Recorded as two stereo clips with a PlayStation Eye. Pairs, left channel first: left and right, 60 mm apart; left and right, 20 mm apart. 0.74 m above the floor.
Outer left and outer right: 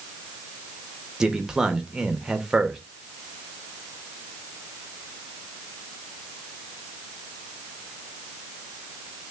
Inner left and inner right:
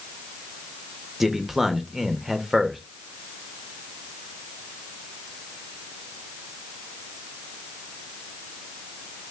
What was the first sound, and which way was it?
A man speaking, 10° right (ahead or behind).